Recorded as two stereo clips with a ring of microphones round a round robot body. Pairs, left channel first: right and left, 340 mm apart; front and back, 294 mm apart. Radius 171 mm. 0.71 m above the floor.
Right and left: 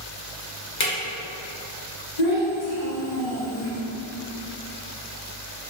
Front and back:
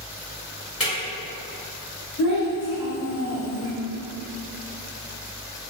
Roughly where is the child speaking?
Right.